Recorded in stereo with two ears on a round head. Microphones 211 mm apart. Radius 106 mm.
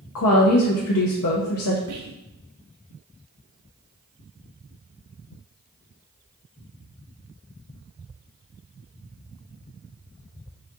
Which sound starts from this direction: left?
A woman speaking, at 0.1 s.